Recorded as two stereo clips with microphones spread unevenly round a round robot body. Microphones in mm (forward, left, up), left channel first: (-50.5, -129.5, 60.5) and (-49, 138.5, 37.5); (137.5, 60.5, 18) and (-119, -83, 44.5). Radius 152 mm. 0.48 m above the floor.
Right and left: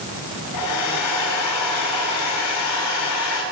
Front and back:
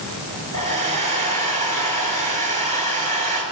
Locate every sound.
0.5 s a hair dryer: 85° right, 4 m